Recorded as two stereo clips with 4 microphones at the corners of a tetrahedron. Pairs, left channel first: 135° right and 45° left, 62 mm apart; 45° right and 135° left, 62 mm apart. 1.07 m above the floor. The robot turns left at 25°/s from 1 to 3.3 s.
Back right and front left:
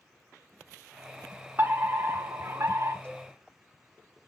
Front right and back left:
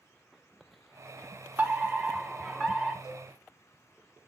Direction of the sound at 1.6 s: 80° left.